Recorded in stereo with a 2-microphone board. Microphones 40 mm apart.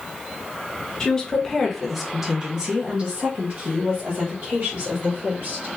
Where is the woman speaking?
15° left (ahead or behind), 1.2 m; by 5.7 s 55° right (ahead or behind), 2 m.